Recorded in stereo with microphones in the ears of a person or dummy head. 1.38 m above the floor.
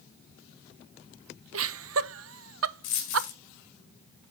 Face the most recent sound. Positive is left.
turn(degrees=50)  # may be behind; listen again after turning